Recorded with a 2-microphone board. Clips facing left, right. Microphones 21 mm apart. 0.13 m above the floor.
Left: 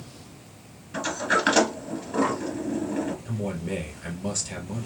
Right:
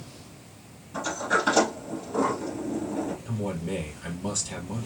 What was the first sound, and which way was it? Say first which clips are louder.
A sliding door: left 1 dB; 55° left (ahead or behind).